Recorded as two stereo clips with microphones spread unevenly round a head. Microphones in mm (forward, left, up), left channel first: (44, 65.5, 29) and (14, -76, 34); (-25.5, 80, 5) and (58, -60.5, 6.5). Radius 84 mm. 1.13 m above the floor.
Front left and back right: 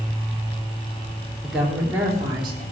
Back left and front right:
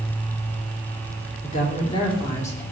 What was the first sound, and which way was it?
A woman speaking, 170° left.